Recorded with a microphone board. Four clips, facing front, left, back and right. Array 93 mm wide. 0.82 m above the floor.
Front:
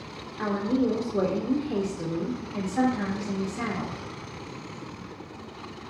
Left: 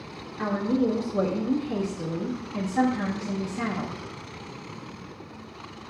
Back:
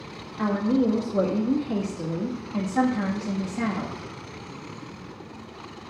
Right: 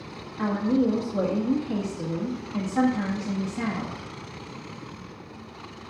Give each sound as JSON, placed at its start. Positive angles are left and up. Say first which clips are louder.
{"t": 0.4, "sound": "a woman speaking", "louder": "right 1 dB, back 3 dB", "azimuth_deg": -160, "distance_m": 1.3}